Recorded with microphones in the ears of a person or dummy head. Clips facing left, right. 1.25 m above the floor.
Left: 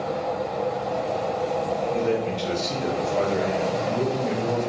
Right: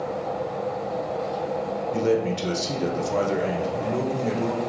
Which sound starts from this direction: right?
A man speaking, at 1.9 s.